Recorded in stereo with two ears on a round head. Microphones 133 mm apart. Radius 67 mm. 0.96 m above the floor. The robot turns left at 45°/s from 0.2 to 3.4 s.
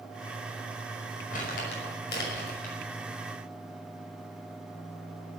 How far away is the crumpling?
About 6 m.